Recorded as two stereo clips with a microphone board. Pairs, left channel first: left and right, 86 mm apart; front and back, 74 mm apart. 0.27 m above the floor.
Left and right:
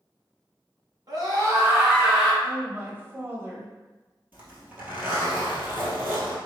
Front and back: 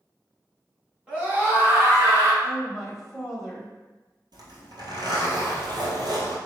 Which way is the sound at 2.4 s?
90° right.